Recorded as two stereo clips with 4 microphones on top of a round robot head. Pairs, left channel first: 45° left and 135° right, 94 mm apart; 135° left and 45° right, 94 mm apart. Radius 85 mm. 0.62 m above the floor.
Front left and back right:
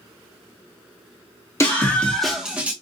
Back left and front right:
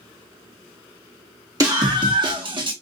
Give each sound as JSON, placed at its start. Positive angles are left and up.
{"t": 1.6, "sound": "a scream", "azimuth_deg": -5, "distance_m": 1.4}